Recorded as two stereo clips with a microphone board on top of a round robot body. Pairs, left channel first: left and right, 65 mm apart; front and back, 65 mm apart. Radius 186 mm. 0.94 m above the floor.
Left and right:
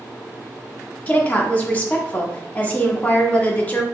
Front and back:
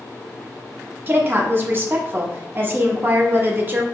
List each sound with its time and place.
1.1 s a woman speaking: 145° left, 0.9 m